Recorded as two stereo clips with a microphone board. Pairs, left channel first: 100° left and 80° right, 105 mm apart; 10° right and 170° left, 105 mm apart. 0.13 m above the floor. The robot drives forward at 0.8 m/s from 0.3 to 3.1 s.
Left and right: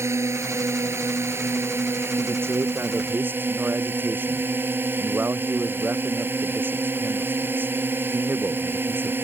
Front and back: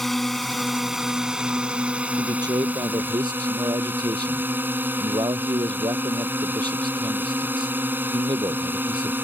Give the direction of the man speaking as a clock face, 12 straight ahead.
5 o'clock.